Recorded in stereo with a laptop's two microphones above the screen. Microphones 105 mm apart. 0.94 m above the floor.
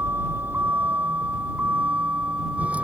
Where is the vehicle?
20° right (ahead or behind); by 2.9 s 10° right (ahead or behind).